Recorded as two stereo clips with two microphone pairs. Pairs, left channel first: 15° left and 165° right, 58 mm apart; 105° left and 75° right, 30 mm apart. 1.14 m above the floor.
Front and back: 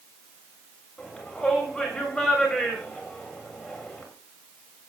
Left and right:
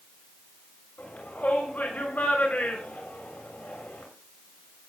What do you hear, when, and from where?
1.0 s a shout: 95° left, 7 m